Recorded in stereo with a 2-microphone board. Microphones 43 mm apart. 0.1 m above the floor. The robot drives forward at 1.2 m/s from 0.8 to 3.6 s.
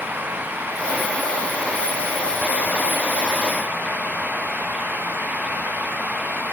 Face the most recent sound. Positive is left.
No sound to turn to.